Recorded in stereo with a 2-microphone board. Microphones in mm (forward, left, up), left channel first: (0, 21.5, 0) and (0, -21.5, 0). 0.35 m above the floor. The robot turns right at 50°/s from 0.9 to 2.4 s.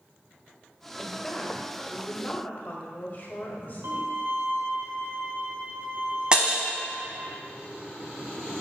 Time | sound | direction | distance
1.0 | a woman speaking | straight ahead | 1.2 m
3.8 | a violin | 75° right (ahead or behind) | 1.0 m
6.3 | breaking glass | 20° right (ahead or behind) | 0.9 m